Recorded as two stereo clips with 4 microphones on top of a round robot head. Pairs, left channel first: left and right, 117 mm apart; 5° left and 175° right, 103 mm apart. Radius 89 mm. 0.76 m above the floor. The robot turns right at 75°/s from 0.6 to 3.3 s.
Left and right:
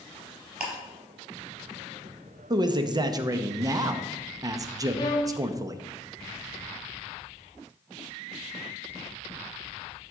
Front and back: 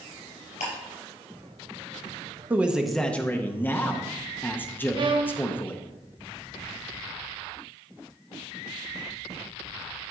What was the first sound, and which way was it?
Ticking, 10° right.